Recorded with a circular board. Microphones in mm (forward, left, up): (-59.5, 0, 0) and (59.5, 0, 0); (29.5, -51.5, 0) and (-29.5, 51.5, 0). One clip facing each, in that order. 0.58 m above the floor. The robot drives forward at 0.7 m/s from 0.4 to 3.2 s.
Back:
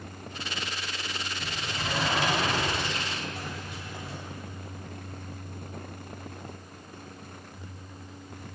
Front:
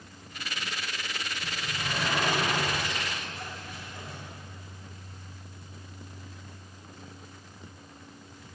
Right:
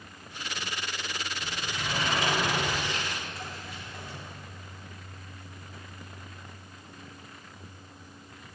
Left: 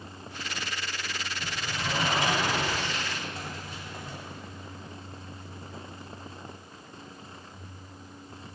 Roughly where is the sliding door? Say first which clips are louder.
Back 2 dB, left 3 dB; behind.